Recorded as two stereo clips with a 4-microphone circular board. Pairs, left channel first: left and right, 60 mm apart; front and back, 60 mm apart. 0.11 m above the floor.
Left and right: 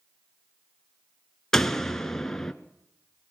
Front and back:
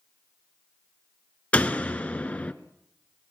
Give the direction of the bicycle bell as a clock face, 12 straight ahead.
No bicycle bell in this recording.